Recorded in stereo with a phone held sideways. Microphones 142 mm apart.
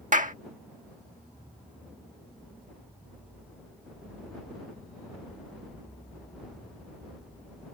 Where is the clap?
65° right (ahead or behind).